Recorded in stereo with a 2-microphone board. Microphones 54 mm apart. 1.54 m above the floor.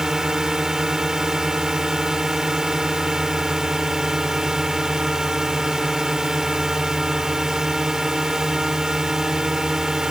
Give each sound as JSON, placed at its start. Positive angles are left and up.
{"t": 0.0, "sound": "a drone", "side_deg": -10}